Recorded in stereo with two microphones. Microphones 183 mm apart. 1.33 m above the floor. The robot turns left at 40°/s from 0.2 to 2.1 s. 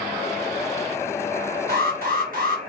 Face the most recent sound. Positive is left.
turn(degrees=-50)  # may be behind; listen again after turning